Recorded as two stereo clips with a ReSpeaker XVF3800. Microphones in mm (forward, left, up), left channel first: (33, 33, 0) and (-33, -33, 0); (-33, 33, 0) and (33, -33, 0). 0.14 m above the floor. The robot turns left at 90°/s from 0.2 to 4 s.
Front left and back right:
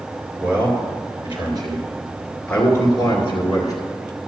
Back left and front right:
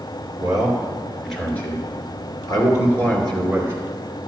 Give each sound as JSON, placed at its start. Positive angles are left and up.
{"t": 0.4, "sound": "a man speaking", "azimuth_deg": -50, "distance_m": 2.5}